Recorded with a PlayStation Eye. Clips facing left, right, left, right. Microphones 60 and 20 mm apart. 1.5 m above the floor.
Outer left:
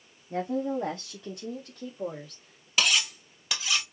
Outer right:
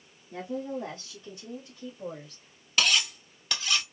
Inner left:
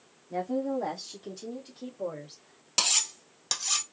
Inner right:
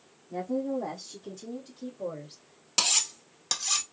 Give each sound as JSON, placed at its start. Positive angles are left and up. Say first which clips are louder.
{"t": 0.3, "sound": "a woman speaking", "louder": "outer left 5 dB, inner left 1 dB", "side_deg": 50, "distance_m": 0.9}
{"t": 2.8, "sound": "cutlery clinking", "louder": "even, even", "side_deg": 5, "distance_m": 0.6}